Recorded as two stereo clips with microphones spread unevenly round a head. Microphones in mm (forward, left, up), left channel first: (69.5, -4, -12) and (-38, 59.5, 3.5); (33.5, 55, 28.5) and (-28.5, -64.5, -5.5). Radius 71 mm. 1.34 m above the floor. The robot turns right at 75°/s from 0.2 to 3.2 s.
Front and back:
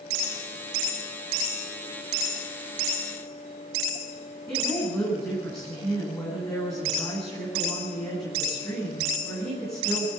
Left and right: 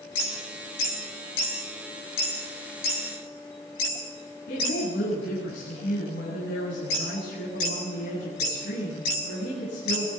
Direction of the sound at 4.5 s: 40° left.